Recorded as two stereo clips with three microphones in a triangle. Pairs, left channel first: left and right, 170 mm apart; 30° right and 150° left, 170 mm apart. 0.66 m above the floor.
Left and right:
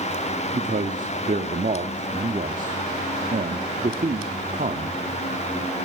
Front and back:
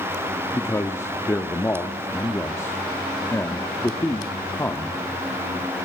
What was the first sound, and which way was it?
A man speaking, 100° right.